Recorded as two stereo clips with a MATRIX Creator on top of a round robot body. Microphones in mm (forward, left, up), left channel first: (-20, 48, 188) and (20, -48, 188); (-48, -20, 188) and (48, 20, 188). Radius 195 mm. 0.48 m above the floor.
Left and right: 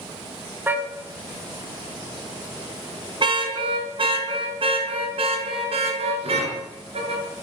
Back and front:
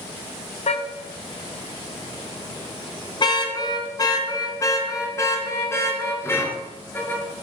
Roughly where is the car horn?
Behind right.